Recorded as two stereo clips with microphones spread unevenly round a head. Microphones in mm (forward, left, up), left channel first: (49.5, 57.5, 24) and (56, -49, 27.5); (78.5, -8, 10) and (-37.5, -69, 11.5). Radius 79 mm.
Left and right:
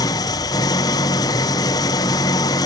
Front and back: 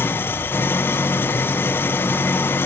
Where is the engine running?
90° left, 0.7 m.